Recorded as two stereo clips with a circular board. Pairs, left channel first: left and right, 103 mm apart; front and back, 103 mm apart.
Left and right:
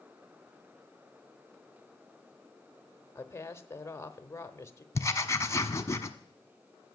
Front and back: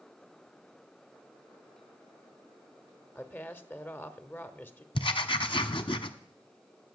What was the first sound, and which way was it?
A woman speaking, 50° left.